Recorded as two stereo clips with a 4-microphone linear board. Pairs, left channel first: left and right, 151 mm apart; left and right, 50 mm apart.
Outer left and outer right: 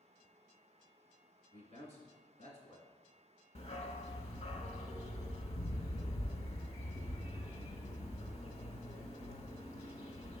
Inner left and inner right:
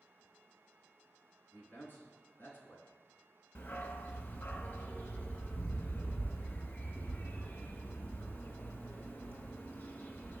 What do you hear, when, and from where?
1.5 s a man speaking: 50° left (ahead or behind), 2.5 m
3.5 s a dog barking: 50° left (ahead or behind), 0.8 m